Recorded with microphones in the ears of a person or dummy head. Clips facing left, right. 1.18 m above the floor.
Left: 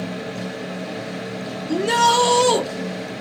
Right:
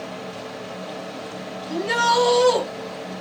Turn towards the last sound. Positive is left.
turn(degrees=55)  # may be behind; listen again after turning